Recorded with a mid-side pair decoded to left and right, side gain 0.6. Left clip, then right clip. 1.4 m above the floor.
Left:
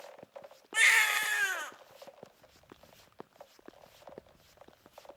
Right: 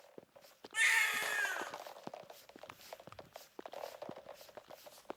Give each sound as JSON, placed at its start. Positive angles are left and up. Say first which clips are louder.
{"t": 0.7, "sound": "a baby crying", "louder": "left 7 dB", "azimuth_deg": 40, "distance_m": 0.7}